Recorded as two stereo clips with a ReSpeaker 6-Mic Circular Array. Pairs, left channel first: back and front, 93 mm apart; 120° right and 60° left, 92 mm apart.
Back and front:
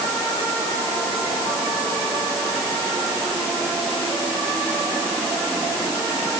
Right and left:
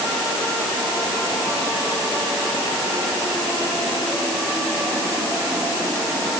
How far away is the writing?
I don't hear writing.